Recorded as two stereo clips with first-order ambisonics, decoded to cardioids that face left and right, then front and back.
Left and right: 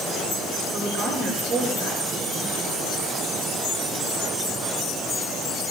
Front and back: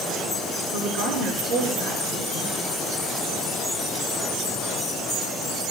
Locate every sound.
0.7 s a woman speaking: 150° right, 6 m